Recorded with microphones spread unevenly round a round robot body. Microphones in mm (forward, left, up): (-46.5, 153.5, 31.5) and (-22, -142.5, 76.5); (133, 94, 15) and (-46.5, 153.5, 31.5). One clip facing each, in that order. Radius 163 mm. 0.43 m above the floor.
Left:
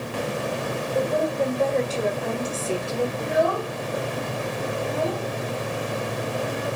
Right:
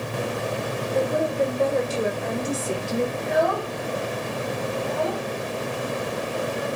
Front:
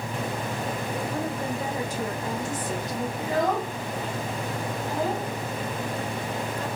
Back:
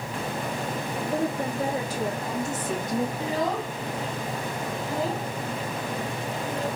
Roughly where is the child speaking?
Ahead.